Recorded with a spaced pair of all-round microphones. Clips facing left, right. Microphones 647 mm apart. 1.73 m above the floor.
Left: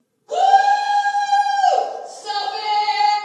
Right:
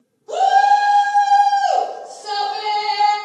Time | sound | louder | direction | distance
0.3 | a shout | even | 65° right (ahead or behind) | 0.8 m